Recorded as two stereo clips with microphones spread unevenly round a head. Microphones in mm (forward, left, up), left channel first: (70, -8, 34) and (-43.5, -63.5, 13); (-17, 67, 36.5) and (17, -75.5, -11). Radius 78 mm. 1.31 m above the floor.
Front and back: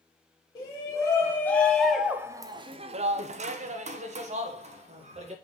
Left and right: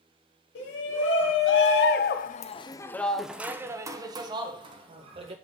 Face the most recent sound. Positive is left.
turn(degrees=-125)